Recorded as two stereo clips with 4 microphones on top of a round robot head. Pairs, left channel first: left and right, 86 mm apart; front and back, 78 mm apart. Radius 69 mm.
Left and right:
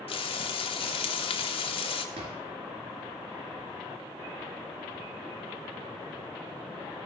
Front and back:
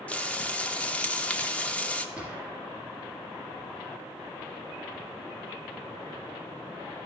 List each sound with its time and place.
0.1 s frying: 75° left, 1.0 m
2.1 s a drawer: 100° right, 3 m